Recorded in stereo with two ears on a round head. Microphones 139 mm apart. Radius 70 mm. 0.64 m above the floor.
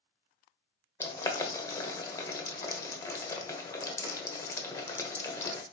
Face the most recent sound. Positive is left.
turn(degrees=20)  # may be behind; listen again after turning